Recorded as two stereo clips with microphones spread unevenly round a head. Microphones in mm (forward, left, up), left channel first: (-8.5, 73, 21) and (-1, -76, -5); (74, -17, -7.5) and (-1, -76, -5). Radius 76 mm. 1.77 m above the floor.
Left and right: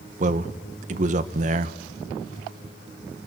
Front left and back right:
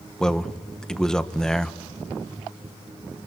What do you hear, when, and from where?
0.2 s a man speaking: 45° right, 1.1 m